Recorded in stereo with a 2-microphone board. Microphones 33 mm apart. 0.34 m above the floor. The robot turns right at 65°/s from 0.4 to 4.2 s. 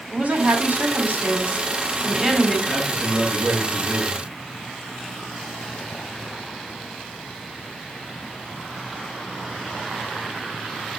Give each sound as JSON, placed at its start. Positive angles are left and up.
{"t": 0.1, "sound": "a woman speaking", "azimuth_deg": -125, "distance_m": 3.0}
{"t": 2.7, "sound": "a man speaking", "azimuth_deg": 120, "distance_m": 4.0}